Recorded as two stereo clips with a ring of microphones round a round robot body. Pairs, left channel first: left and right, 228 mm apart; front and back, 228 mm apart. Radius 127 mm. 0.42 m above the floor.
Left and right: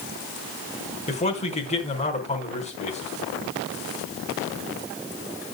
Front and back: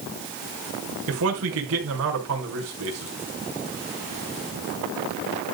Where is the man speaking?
150° left, 4.5 m.